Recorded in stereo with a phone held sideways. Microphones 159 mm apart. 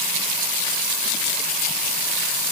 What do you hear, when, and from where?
Only background noise.